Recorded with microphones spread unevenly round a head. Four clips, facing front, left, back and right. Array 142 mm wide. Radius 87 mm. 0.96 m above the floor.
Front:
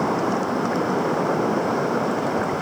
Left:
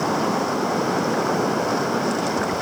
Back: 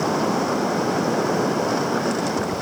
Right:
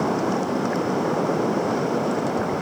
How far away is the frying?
No frying in this recording.